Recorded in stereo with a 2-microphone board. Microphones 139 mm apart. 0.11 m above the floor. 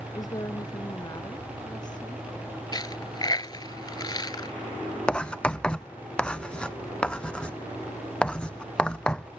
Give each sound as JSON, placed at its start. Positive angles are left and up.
{"t": 0.1, "sound": "a woman speaking", "side_deg": 25}
{"t": 2.7, "sound": "a dropped coin", "side_deg": 30}
{"t": 5.1, "sound": "writing", "side_deg": 5}